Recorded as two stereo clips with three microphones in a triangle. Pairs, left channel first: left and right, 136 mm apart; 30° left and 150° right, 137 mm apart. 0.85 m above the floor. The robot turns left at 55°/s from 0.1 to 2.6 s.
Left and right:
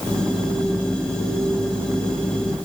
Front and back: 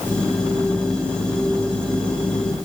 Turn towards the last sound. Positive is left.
No sound to turn to.